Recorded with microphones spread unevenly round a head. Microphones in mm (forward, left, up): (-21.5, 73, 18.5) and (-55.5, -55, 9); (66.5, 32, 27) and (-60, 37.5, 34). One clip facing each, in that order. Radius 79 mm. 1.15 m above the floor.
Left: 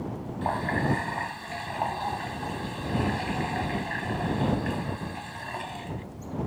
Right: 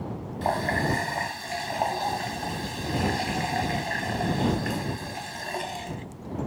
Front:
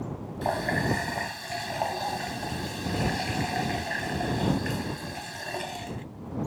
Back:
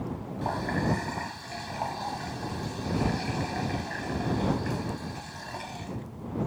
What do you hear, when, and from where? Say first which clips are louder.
0.4 s a running tap: right 2 dB, front 2 dB; 45° right